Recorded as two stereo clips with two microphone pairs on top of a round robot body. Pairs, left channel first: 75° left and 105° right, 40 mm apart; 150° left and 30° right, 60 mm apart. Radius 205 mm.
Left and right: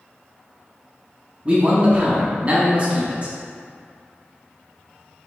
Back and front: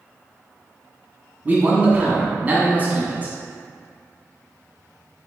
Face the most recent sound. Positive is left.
turn(degrees=-65)